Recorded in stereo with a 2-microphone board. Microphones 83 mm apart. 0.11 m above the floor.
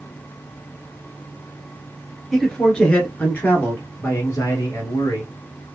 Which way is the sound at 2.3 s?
5° left (ahead or behind).